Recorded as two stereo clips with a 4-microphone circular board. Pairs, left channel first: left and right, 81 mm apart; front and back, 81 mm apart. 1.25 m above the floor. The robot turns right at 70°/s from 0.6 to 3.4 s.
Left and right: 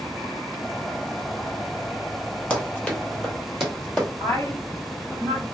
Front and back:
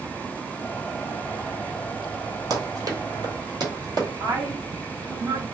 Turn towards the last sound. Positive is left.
turn(degrees=150)